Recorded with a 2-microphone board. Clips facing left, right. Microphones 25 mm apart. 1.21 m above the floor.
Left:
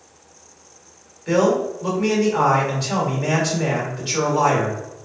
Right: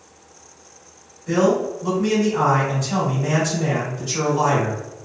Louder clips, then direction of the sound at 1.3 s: Left 1 dB; 80° left.